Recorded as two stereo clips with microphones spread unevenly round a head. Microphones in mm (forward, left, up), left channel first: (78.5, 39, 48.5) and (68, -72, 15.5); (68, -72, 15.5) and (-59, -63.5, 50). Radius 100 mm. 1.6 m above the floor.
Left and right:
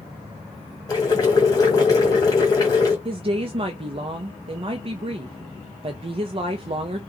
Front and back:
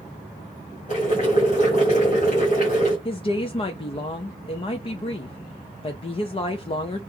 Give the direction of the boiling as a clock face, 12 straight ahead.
10 o'clock.